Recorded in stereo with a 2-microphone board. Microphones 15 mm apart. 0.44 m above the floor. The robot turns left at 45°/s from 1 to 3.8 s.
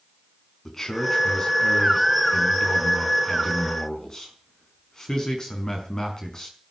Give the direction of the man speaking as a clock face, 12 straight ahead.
6 o'clock.